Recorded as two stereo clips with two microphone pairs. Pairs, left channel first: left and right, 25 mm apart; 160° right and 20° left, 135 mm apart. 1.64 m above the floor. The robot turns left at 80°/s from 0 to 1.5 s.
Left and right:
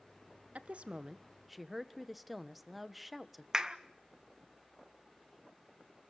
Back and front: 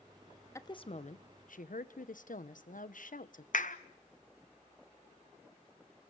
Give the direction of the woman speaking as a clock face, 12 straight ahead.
3 o'clock.